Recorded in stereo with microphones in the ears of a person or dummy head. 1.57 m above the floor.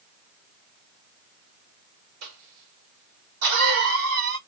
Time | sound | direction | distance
2.2 | a cough | 75° right (ahead or behind) | 1.6 m